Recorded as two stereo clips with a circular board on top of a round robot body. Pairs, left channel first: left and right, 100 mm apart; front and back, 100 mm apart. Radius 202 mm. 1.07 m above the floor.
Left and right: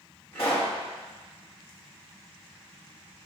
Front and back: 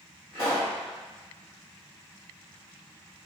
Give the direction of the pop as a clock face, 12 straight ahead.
7 o'clock.